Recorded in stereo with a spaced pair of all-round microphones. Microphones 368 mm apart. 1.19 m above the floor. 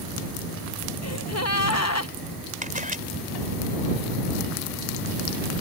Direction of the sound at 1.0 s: 45° left (ahead or behind).